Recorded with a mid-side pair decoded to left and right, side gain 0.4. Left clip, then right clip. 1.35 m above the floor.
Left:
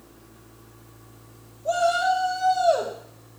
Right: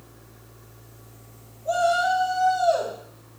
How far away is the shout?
About 1.6 m.